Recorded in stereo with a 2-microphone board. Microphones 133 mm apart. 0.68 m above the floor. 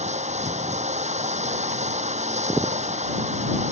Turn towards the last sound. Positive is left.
turn(degrees=-60)  # may be behind; listen again after turning